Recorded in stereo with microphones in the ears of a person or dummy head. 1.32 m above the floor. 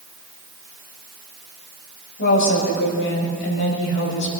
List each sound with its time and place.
2.2 s a woman speaking: 60° left (ahead or behind), 5.5 m